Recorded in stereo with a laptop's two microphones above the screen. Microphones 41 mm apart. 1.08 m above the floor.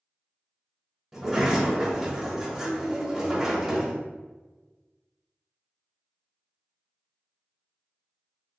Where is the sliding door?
5° right (ahead or behind), 1.1 m.